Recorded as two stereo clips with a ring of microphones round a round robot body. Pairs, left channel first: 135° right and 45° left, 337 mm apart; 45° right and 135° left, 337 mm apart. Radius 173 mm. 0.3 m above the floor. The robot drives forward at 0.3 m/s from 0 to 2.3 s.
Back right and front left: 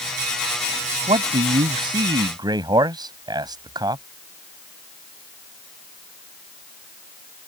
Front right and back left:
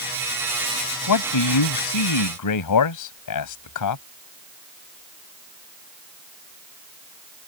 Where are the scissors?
I don't hear scissors.